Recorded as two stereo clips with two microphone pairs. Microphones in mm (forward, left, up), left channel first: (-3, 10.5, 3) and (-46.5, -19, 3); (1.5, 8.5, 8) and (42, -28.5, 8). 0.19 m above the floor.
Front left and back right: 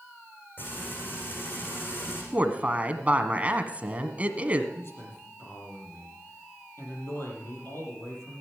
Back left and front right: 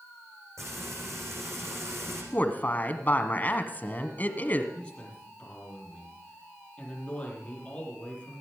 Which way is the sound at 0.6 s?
15° right.